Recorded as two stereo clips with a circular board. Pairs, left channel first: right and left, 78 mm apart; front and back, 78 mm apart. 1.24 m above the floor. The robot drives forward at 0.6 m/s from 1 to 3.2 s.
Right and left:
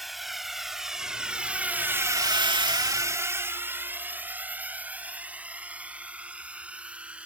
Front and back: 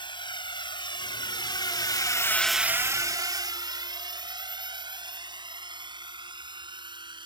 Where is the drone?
Straight ahead; by 7.3 s 165° left.